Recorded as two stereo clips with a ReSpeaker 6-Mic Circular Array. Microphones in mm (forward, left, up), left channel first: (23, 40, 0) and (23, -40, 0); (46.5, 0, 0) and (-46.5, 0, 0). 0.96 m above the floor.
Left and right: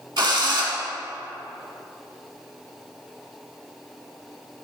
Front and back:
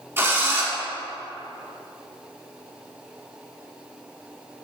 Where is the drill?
115° right, 1.2 m.